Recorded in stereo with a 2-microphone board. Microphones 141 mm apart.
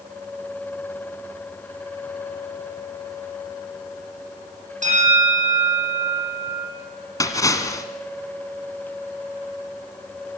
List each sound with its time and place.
4.8 s a bell: 60° right (ahead or behind), 9 m
7.2 s a splash: 25° left (ahead or behind), 2 m